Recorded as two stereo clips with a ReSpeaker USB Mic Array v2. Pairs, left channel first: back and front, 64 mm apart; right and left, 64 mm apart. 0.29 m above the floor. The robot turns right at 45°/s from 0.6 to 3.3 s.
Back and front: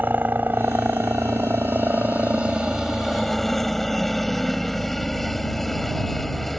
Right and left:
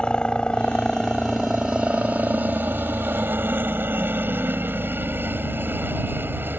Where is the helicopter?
25° right; by 6.6 s 95° left.